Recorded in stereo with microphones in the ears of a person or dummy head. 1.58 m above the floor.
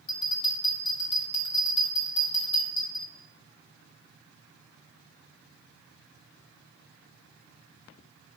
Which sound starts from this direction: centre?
A bell, at 0.1 s.